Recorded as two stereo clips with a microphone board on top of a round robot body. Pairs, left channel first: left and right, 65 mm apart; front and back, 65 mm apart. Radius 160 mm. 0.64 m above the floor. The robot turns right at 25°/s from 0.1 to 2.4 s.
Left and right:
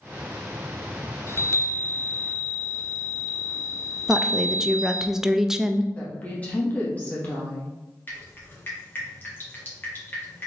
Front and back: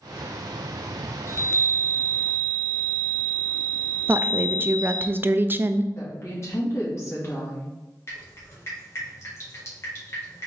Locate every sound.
1.3 s a chime: 40° left, 0.6 m; by 5.1 s 70° left, 0.6 m
4.1 s a woman speaking: 165° right, 0.5 m
6.0 s a woman speaking: 30° left, 1.6 m
8.1 s dripping: 40° left, 2.0 m